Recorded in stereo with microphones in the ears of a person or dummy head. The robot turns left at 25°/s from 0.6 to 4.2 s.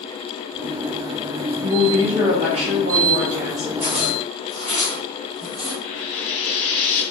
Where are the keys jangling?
I don't hear keys jangling.